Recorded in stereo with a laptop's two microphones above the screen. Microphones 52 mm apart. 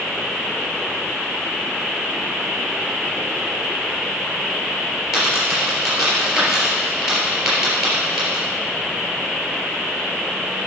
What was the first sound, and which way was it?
A dropped coin, 10° right (ahead or behind).